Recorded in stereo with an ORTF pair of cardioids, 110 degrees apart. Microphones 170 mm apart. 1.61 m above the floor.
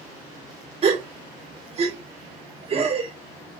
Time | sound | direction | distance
0.8 | a gasp | 35° right | 1.3 m